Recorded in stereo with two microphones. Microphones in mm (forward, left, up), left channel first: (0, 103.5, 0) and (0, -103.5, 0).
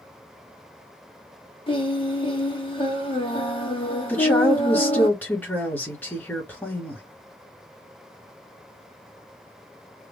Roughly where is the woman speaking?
Centre.